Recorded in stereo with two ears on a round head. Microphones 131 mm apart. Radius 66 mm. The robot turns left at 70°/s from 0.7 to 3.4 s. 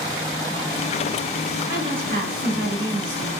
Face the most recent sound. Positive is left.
turn(degrees=-145)